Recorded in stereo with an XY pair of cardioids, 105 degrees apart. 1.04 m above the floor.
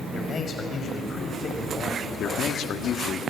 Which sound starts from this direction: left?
A man speaking, at 2.2 s.